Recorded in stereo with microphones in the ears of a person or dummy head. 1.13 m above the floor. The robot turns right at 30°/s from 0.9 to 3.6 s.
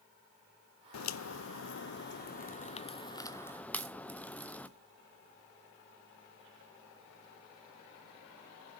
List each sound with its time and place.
0.9 s a crack: 80° left, 0.6 m; by 4.7 s 10° left (ahead or behind), 0.6 m